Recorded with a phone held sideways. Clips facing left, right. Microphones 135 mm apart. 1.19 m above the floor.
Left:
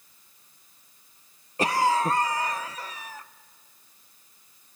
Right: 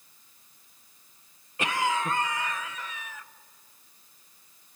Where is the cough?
35° left (ahead or behind), 0.7 m.